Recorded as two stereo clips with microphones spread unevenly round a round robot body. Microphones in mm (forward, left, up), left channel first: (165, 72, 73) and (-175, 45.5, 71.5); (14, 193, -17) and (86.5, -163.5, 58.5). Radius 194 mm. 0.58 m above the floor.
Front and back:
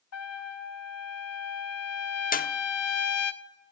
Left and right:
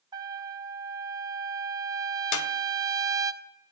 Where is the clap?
70° left, 1.0 m.